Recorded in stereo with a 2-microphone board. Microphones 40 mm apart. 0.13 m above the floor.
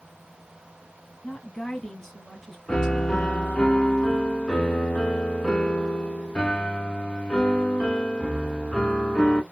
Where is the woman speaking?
15° left (ahead or behind), 1.5 m; by 3.7 s 25° right (ahead or behind), 1.6 m.